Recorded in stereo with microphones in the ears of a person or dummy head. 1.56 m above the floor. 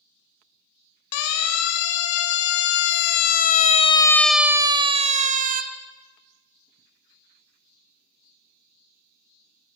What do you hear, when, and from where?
1.1 s a siren: 80° left, 3.5 m; by 5.6 s 55° right (ahead or behind), 1.7 m